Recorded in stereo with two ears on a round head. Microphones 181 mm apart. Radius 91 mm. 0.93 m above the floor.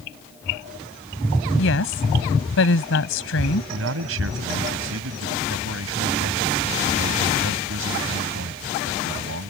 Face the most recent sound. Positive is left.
turn(degrees=-75)  # may be behind; listen again after turning